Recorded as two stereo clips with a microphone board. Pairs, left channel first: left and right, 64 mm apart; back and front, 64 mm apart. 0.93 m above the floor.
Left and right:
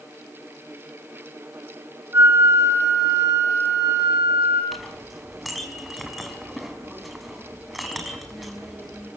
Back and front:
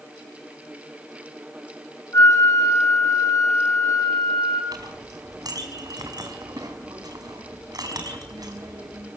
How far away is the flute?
About 6.5 m.